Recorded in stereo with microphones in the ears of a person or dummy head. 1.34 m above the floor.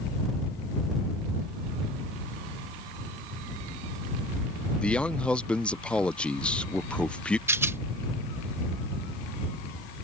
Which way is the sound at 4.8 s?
5° left (ahead or behind).